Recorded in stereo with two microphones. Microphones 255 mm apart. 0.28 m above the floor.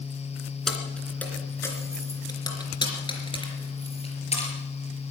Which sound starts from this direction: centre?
Keys jangling, at 0.7 s.